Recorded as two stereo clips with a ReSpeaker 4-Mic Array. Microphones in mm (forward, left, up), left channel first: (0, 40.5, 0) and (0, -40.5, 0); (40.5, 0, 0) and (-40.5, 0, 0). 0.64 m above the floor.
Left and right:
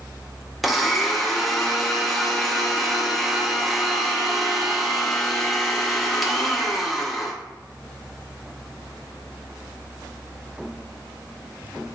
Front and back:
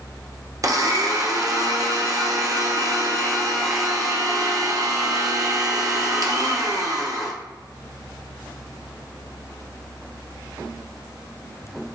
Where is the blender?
Straight behind, 0.6 m.